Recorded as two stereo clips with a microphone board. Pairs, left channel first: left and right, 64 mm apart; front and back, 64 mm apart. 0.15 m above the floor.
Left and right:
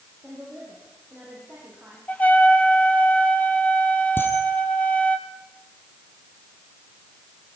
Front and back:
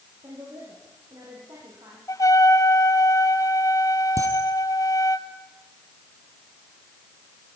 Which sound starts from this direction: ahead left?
A trumpet, at 2.1 s.